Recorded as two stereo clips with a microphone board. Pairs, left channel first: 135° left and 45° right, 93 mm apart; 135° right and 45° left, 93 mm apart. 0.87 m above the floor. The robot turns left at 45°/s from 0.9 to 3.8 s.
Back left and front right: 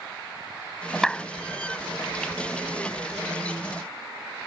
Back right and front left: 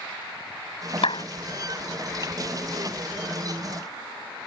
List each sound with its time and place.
1.0 s a clap: 140° right; by 1.2 s 150° right